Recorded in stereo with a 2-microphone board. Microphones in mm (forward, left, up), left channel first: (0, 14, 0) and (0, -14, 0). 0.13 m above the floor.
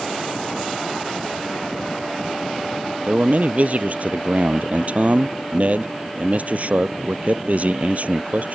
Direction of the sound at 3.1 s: 55° right (ahead or behind).